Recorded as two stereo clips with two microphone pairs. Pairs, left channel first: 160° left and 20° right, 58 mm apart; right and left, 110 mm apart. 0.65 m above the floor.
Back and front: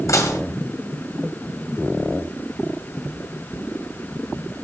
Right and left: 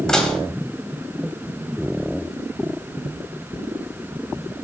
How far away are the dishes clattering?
About 2 m.